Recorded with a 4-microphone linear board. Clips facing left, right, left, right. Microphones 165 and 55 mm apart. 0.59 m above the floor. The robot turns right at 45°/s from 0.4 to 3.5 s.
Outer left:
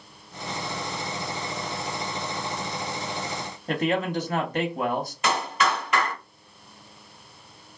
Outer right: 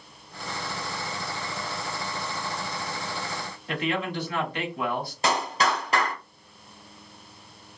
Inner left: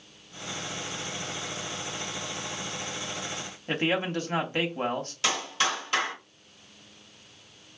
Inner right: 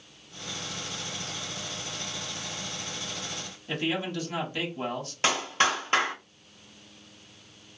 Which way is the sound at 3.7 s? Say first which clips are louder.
Outer left 4 dB, inner left 3 dB; 45° left (ahead or behind).